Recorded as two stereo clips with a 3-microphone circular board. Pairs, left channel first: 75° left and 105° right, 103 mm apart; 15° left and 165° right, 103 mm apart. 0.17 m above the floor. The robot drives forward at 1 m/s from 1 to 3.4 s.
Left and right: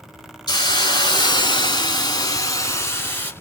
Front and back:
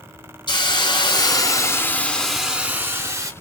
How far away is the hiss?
About 1.7 m.